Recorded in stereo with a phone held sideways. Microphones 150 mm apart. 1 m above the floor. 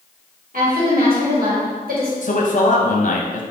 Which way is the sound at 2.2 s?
60° left (ahead or behind).